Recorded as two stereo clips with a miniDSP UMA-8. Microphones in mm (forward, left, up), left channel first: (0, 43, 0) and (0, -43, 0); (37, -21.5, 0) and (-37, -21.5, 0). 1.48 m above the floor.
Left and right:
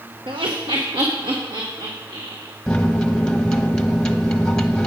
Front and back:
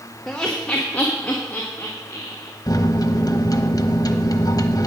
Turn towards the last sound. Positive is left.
turn(degrees=10)